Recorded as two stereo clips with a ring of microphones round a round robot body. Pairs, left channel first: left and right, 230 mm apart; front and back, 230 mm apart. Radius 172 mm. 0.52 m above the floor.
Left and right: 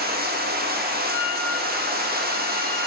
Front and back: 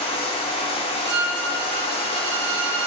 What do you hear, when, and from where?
0.0 s running water: 60° right, 1.0 m
1.1 s a violin: 175° left, 1.2 m